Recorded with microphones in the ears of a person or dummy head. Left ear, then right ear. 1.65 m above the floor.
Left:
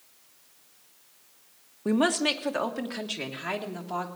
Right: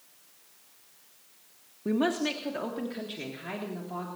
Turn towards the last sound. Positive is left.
turn(degrees=50)  # may be behind; listen again after turning